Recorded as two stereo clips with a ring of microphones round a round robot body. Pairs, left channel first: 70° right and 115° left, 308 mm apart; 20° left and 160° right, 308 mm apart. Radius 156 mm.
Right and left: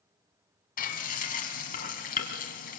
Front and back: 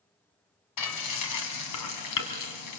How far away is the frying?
About 2 m.